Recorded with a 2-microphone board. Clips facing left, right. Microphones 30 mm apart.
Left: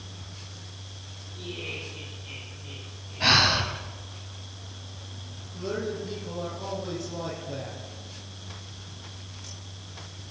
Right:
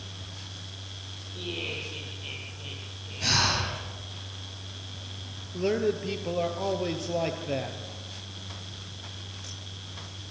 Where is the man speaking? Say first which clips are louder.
Right 5 dB; 70° right (ahead or behind), 4.5 m.